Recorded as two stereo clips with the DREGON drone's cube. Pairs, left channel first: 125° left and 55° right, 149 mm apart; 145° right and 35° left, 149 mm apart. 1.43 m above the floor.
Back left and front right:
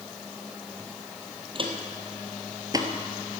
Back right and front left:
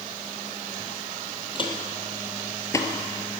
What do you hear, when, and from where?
1.6 s footsteps: 100° right, 2.5 m; by 2.9 s 95° right, 1.6 m